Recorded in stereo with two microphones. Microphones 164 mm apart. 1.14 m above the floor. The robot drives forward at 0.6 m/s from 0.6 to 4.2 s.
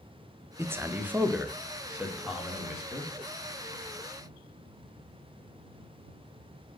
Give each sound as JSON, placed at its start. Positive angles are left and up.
{"t": 0.6, "sound": "a man speaking", "side_deg": -15, "distance_m": 0.7}